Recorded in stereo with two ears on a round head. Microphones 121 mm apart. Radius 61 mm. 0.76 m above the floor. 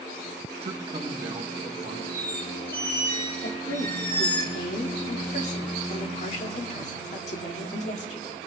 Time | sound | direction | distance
0.6 | a man speaking | 40° right (ahead or behind) | 0.6 m
2.1 | a squeak | 15° left (ahead or behind) | 1.8 m
3.4 | a woman speaking | 50° left (ahead or behind) | 1.8 m